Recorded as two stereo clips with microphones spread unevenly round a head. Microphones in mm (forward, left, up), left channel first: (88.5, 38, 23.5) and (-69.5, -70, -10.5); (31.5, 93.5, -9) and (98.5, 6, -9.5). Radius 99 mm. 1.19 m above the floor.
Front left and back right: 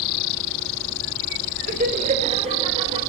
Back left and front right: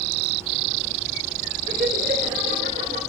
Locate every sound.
1.7 s laughter: 105° right, 2.5 m; by 3.0 s 85° right, 4 m